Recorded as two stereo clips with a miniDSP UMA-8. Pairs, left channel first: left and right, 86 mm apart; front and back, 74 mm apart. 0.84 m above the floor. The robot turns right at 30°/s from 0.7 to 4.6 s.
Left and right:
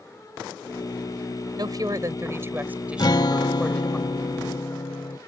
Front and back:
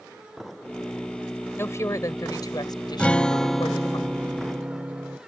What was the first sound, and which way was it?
A woman speaking, 55° right.